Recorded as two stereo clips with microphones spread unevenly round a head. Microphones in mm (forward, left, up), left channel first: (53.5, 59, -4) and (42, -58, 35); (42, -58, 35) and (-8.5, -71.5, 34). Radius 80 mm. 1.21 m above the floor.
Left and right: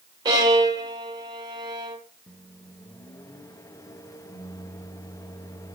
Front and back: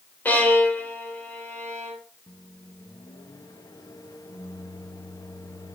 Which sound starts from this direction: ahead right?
A violin, at 0.2 s.